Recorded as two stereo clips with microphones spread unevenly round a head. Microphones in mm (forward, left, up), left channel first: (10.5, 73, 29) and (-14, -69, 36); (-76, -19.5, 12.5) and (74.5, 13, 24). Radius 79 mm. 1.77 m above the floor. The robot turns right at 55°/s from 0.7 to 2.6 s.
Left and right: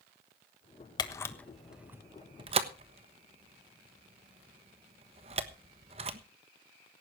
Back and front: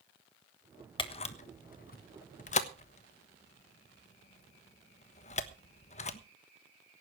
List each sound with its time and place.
1.0 s a camera shutter: 140° left, 1.2 m; by 6.2 s 135° right, 1.2 m